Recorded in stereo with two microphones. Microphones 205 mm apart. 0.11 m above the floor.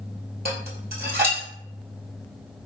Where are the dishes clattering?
50° right (ahead or behind), 1.9 m.